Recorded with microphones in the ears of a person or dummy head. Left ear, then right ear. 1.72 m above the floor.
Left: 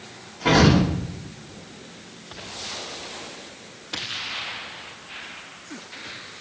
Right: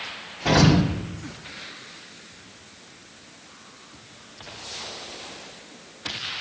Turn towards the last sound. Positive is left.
turn(degrees=15)  # may be behind; listen again after turning